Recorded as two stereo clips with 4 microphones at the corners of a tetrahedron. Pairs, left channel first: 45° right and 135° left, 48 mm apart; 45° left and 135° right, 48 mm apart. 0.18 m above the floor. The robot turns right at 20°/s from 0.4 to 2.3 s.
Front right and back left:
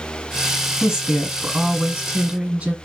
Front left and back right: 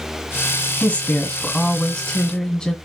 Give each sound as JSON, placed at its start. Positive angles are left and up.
{"t": 0.8, "sound": "a woman speaking", "azimuth_deg": 75, "distance_m": 1.1}